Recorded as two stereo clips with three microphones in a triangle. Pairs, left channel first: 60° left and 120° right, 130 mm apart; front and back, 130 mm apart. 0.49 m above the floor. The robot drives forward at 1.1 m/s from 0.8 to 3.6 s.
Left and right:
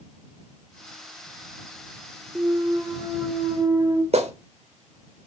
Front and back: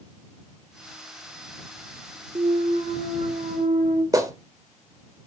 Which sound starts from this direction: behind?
A clunk, at 2.4 s.